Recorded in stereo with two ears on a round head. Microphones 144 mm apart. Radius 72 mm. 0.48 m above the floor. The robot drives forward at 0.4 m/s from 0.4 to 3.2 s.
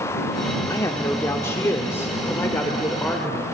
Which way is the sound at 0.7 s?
20° left (ahead or behind).